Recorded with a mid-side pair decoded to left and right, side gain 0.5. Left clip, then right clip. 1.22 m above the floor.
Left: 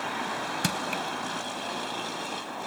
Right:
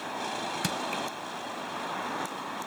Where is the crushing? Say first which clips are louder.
Left 3 dB; 20° left.